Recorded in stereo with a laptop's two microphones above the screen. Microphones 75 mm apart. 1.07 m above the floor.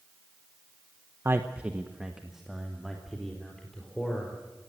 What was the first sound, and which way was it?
A man speaking, 35° right (ahead or behind).